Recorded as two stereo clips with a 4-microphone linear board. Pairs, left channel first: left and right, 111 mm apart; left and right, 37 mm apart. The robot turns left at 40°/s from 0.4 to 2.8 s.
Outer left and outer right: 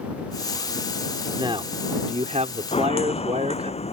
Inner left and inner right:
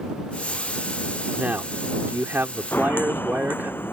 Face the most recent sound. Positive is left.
turn(degrees=75)  # may be behind; listen again after turning